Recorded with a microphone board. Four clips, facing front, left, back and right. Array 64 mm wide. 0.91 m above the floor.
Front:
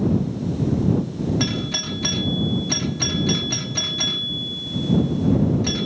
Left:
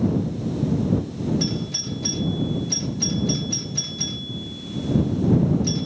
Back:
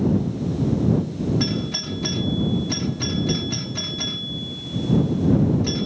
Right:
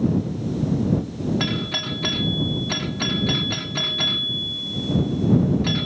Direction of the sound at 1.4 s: 75° right.